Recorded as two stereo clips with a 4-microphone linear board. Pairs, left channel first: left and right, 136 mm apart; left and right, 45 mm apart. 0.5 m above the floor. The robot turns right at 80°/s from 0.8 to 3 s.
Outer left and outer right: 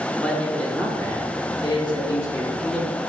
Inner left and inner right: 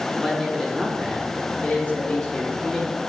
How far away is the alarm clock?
No alarm clock in this recording.